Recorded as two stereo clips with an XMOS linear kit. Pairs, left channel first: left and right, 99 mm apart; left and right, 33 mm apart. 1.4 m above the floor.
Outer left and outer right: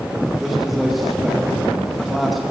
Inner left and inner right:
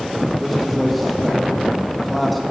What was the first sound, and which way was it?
A man speaking, centre (ahead or behind).